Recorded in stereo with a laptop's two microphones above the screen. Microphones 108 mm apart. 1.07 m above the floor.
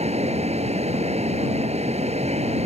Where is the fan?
90° right.